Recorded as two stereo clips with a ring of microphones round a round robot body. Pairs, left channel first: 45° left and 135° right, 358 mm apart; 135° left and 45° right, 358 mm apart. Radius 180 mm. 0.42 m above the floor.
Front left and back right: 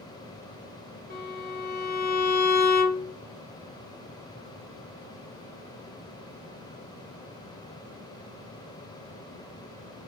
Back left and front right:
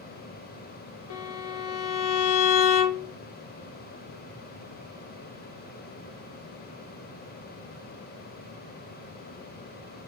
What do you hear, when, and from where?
1.1 s a violin: 110° left, 0.5 m